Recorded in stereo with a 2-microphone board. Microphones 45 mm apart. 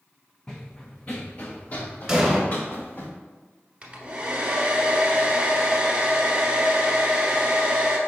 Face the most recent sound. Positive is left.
turn(degrees=-25)  # may be behind; listen again after turning